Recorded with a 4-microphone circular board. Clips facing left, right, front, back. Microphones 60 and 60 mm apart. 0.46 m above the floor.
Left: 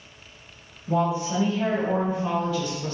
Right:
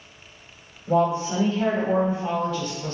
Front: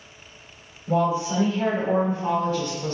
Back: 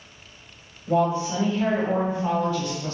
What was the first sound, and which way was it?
A woman speaking, 80° right.